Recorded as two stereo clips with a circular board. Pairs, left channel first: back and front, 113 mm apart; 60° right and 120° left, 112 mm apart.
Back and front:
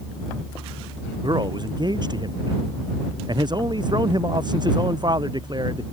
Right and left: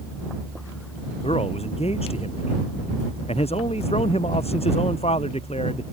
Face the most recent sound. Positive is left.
turn(degrees=-45)